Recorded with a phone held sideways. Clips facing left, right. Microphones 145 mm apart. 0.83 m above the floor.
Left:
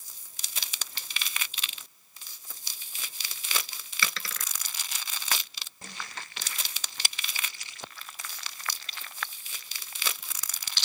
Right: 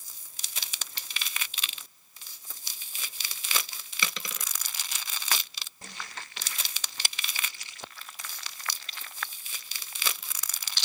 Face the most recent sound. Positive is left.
turn(degrees=-20)  # may be behind; listen again after turning